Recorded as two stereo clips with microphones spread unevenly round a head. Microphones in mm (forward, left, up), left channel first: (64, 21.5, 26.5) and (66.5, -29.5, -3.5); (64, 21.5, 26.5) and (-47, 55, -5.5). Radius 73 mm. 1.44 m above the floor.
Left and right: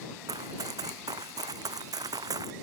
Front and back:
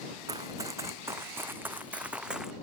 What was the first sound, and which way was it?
Running footsteps, 125° right.